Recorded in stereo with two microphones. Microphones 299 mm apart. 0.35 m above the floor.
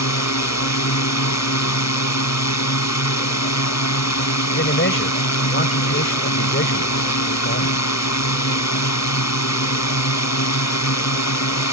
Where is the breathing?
I don't hear breathing.